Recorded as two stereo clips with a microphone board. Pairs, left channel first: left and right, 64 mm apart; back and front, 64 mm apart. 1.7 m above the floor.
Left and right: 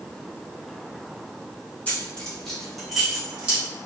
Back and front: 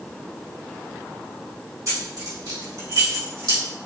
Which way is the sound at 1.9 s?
25° left.